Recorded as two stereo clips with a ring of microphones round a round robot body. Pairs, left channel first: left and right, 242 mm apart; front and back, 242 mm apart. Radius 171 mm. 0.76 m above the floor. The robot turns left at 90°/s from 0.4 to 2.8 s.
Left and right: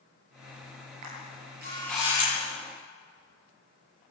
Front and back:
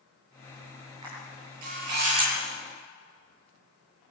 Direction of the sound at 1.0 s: 100° right.